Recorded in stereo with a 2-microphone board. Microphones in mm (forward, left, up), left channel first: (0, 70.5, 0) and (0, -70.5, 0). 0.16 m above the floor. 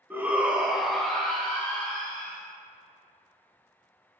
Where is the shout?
15° right (ahead or behind), 1.1 m; by 2.4 s 15° left (ahead or behind), 2 m.